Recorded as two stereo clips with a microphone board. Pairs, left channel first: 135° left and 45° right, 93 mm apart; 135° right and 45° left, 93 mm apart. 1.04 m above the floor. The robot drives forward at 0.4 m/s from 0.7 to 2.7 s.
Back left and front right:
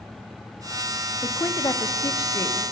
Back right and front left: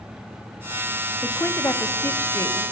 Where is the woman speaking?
170° left, 0.5 m; by 2.6 s 175° left, 1.0 m.